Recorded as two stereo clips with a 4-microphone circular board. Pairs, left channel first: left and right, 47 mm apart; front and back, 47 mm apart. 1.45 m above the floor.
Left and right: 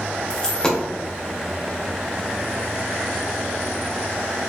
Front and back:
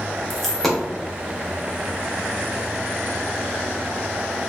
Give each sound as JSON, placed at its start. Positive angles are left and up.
{"t": 0.3, "sound": "a dropped coin", "azimuth_deg": 70, "distance_m": 0.7}